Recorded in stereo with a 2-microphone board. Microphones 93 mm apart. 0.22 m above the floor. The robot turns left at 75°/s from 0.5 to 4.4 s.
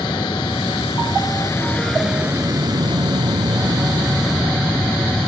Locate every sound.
0.0 s an aircraft: 110° left; by 5.3 s straight behind